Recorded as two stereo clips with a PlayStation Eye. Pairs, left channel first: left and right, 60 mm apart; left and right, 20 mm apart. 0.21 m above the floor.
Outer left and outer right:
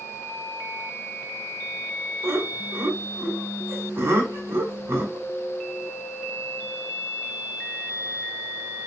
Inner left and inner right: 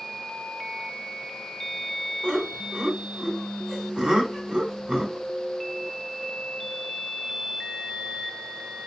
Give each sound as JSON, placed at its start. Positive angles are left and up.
{"t": 2.2, "sound": "laughter", "side_deg": -45, "distance_m": 1.4}